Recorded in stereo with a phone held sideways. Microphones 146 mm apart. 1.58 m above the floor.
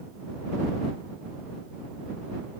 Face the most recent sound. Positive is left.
No sound to turn to.